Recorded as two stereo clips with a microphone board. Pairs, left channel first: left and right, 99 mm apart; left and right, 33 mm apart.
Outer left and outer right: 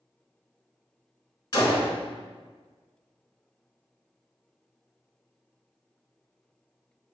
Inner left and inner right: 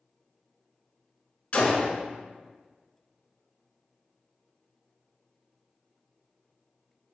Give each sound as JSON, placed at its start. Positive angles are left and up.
{"t": 1.5, "sound": "a gunshot", "side_deg": 45, "distance_m": 0.6}